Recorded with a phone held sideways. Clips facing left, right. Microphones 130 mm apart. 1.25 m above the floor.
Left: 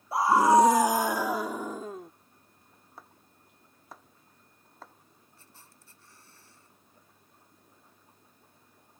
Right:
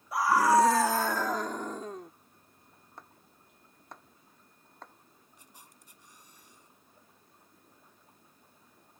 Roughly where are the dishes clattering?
I don't hear dishes clattering.